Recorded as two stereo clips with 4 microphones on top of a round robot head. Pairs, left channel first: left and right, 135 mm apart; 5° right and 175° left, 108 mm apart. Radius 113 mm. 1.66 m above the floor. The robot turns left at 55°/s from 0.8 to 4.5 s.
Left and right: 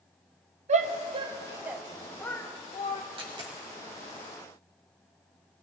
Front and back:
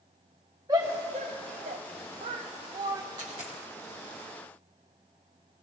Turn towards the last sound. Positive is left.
turn(degrees=165)